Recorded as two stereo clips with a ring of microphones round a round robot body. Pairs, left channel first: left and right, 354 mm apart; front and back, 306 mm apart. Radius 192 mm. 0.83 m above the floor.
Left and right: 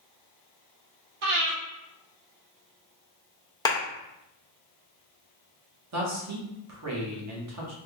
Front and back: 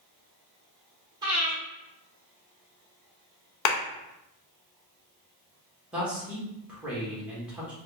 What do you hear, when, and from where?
1.2 s breathing: 100° right, 1.3 m
3.6 s a clap: 15° left, 0.7 m
5.9 s a man speaking: 95° right, 1.1 m